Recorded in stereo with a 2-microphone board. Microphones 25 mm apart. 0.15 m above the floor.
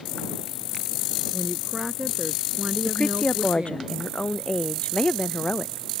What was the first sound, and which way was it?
A woman speaking, centre (ahead or behind).